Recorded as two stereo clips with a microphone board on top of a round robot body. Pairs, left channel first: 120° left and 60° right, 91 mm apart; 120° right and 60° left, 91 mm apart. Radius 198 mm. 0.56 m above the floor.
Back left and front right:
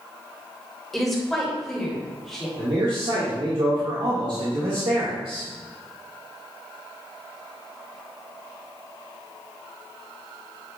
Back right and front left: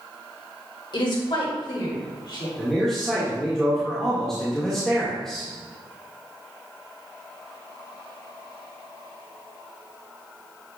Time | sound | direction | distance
0.9 | a woman speaking | 155° right | 2.5 m
2.6 | a man speaking | 35° right | 2 m